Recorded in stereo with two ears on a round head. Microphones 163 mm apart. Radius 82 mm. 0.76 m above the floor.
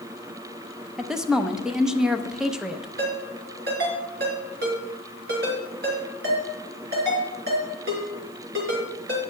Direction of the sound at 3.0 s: 60° right (ahead or behind).